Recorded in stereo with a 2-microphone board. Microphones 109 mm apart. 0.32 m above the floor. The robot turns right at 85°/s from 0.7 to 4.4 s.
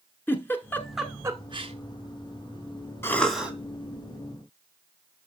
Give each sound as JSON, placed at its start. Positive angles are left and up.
{"t": 0.3, "sound": "a giggle", "side_deg": 20, "distance_m": 1.0}
{"t": 3.0, "sound": "a cough", "azimuth_deg": 155, "distance_m": 2.0}